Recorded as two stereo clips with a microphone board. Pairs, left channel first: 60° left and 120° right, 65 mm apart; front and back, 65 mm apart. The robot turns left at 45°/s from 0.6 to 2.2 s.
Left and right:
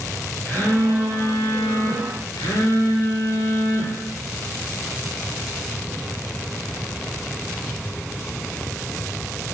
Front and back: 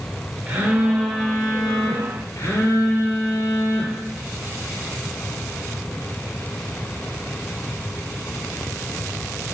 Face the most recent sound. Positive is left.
turn(degrees=45)